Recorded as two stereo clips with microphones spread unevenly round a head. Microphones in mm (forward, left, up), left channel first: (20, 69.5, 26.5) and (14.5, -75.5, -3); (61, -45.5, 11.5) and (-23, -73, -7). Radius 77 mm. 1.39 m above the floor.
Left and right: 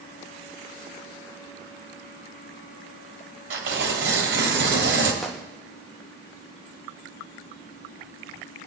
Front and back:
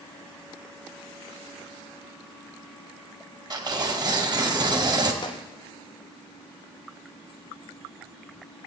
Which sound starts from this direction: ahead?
A gunshot, at 5.2 s.